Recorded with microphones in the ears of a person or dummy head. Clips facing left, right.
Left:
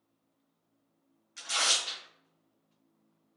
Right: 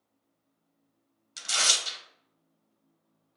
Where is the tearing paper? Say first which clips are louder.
Right 1 dB; 40° right (ahead or behind), 0.8 m.